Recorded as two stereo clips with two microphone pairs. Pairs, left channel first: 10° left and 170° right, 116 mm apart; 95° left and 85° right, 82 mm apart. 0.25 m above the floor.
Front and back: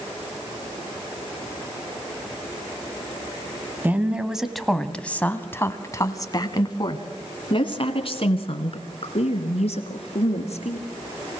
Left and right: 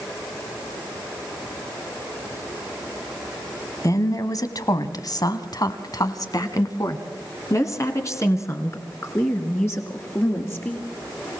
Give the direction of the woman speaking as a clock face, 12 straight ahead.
8 o'clock.